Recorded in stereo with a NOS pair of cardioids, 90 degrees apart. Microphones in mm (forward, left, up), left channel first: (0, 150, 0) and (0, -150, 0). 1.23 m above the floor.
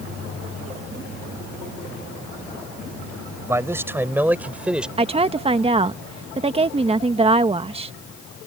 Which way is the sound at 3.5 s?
10° right.